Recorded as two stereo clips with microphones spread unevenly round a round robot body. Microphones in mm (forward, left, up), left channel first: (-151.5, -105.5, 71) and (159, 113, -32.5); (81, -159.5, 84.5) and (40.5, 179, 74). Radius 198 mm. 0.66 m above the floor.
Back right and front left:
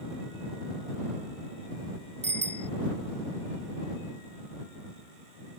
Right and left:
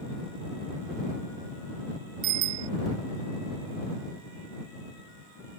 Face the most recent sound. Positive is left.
turn(degrees=110)